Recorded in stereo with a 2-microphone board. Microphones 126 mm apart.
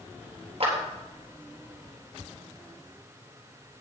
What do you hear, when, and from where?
0.6 s a clap: 50° right (ahead or behind), 3.5 m